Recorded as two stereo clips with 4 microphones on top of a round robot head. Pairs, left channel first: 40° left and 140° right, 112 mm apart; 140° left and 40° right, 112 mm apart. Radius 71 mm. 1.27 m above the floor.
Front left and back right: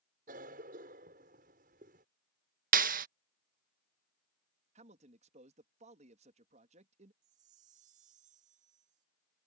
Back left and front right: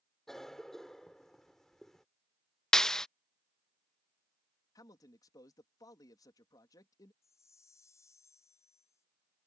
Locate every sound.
0.3 s a cough: 135° right
2.7 s a clap: 135° right
4.8 s a man speaking: 160° right
7.2 s a chime: 155° right